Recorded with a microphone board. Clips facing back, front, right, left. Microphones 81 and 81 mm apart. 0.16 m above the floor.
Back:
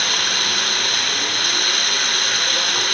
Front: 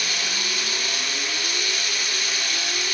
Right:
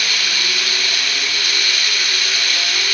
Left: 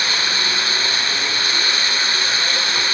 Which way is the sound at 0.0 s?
150° left.